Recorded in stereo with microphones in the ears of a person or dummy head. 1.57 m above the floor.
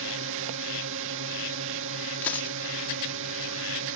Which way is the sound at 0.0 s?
65° right (ahead or behind).